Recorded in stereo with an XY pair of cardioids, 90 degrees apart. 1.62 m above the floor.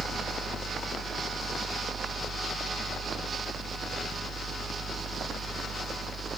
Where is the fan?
40° right, 0.8 m.